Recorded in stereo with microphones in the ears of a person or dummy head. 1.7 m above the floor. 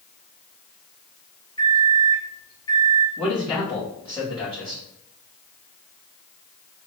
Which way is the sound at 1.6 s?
20° left (ahead or behind).